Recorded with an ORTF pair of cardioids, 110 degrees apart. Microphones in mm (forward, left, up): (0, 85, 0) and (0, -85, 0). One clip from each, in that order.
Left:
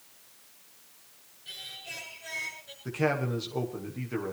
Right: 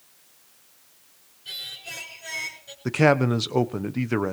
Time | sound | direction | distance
1.4 | singing | 35° right | 6.5 m
2.9 | a man speaking | 65° right | 1.2 m